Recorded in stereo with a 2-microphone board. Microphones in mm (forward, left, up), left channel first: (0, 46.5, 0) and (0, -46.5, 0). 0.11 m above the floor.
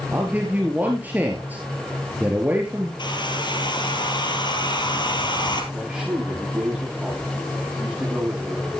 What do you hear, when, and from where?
0.1 s a man speaking: 20° right (ahead or behind), 2 m
3.0 s a hair dryer: 55° left (ahead or behind), 2.5 m
5.7 s a man speaking: 5° right (ahead or behind), 9.5 m